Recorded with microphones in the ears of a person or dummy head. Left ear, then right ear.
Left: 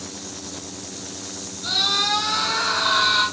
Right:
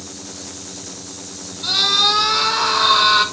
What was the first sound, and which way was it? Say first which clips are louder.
A scream: right 5 dB; 60° right (ahead or behind).